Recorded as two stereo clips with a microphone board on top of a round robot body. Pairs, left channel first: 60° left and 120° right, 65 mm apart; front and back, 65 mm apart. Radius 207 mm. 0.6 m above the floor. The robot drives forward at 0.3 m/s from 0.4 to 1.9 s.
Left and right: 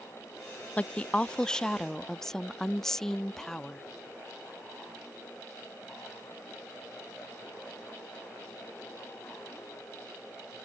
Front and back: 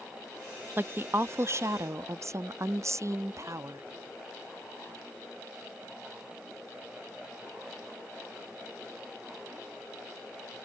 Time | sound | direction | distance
0.8 | a woman speaking | 125° left | ?